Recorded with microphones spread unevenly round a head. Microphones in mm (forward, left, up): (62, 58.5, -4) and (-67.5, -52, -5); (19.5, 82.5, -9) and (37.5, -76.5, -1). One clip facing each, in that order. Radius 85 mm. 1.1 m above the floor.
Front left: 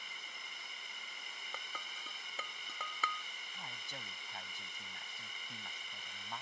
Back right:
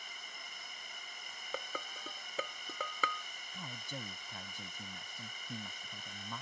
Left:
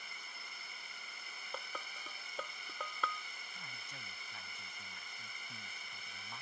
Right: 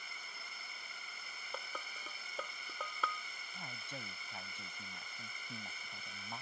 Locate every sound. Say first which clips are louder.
0.0 s a drone: back right 2 dB, right 1 dB; 85° right
1.5 s dishes clattering: back right 9 dB, even; 170° right
3.5 s a man speaking: back right 6 dB, right 9 dB; 150° right